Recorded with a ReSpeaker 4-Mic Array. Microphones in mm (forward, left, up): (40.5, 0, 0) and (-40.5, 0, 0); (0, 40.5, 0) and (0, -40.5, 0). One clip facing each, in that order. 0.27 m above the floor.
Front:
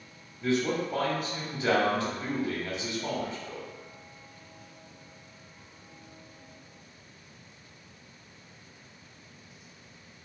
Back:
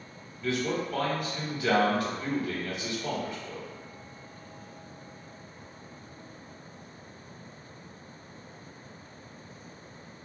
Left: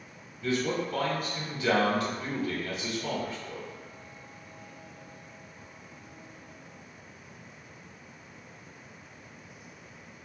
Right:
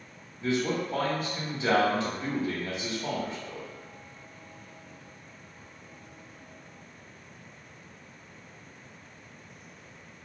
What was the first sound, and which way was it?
A man speaking, 45° right.